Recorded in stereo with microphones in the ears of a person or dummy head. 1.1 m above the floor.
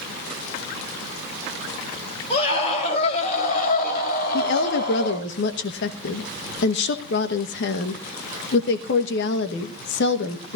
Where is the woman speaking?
55° left (ahead or behind), 1.2 m.